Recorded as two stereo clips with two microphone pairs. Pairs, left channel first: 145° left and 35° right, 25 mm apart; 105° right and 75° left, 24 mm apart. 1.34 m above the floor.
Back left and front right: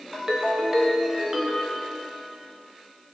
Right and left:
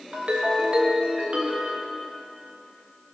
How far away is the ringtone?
About 1.4 m.